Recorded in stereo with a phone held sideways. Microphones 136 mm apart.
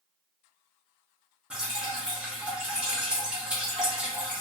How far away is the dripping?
About 0.9 m.